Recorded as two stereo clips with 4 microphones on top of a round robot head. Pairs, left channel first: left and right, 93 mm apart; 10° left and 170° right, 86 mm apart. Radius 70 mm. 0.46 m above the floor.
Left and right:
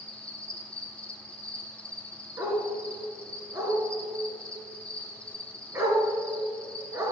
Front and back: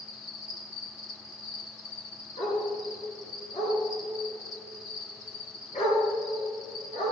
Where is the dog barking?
30° right, 3 m.